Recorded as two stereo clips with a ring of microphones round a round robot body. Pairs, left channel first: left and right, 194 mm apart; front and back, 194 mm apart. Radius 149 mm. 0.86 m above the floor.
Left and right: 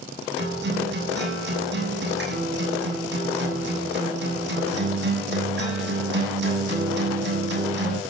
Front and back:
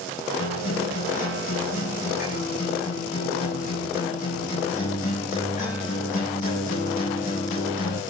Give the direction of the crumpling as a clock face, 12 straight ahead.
No crumpling in this recording.